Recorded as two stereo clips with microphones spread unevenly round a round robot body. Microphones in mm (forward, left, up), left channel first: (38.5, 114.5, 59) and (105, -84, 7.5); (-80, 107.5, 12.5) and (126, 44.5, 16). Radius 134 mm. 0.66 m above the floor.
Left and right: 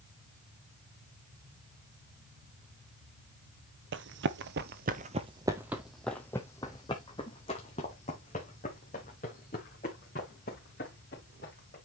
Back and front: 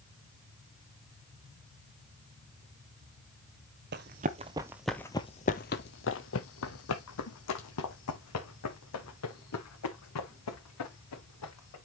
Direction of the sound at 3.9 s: 40° right.